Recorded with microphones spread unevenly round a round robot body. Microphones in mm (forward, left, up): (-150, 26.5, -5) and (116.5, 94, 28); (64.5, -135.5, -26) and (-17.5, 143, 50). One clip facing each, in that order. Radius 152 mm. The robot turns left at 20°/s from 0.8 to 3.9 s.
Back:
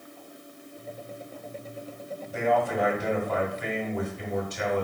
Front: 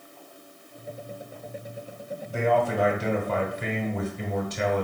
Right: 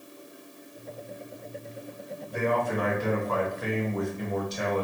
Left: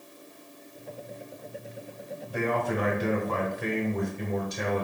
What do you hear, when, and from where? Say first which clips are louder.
2.3 s a man speaking: front 2 dB, right 1 dB; 70° left, 1.2 m; by 4.8 s 40° left, 1.2 m